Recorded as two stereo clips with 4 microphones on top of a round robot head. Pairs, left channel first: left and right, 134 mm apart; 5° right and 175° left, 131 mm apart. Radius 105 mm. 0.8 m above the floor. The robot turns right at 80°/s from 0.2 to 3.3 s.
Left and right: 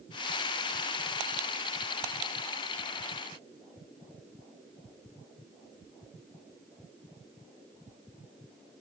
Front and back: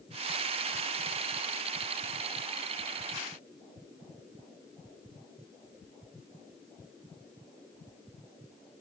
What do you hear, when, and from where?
Only background noise.